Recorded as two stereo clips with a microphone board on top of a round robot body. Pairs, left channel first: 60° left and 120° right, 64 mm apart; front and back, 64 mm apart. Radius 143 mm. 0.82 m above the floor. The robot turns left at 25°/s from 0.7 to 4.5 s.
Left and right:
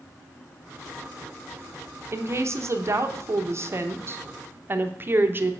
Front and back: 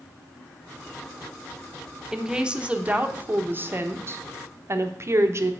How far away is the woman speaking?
About 1.0 m.